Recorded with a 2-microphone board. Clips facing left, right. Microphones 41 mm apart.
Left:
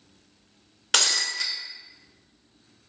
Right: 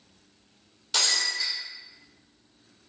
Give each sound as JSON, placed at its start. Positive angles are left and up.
{"t": 0.9, "sound": "breaking glass", "side_deg": 75, "distance_m": 0.8}